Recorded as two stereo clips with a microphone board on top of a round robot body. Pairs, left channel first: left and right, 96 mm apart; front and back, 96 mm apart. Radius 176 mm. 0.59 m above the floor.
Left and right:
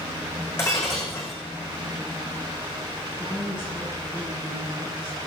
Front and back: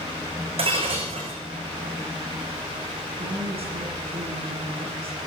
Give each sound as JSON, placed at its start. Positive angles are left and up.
{"t": 0.6, "sound": "breaking glass", "azimuth_deg": 155, "distance_m": 7.5}
{"t": 3.2, "sound": "a woman speaking", "azimuth_deg": 160, "distance_m": 7.5}